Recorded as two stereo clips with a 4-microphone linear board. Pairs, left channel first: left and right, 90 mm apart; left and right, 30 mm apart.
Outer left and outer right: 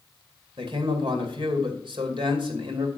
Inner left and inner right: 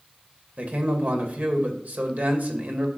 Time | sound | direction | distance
0.6 | a man speaking | 70° right (ahead or behind) | 2.5 m